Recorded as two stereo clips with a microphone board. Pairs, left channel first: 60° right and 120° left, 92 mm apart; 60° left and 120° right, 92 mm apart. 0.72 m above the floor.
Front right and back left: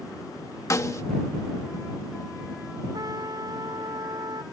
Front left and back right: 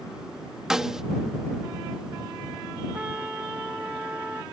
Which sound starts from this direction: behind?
A trumpet, at 2.9 s.